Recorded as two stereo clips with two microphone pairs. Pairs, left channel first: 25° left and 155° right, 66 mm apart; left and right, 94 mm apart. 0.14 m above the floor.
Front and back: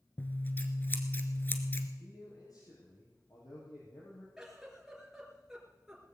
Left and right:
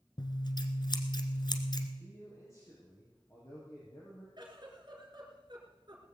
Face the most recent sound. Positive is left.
turn(degrees=-75)